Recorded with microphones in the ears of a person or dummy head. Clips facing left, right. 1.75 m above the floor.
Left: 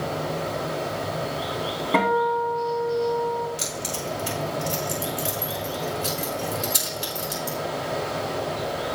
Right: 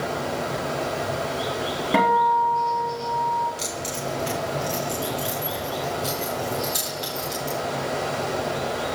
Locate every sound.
0.0 s running water: 75° right (ahead or behind), 5 m
1.9 s a guitar: 15° right (ahead or behind), 2.5 m
3.6 s keys jangling: 10° left (ahead or behind), 4 m